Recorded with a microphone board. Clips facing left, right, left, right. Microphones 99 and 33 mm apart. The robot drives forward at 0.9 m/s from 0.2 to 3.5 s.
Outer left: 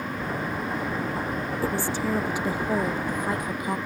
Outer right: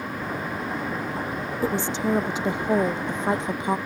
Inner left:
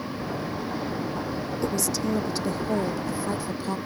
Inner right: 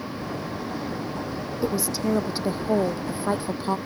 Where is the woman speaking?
20° right (ahead or behind); by 3.8 s 25° right (ahead or behind).